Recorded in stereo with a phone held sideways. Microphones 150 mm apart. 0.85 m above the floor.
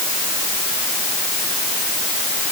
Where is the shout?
I don't hear a shout.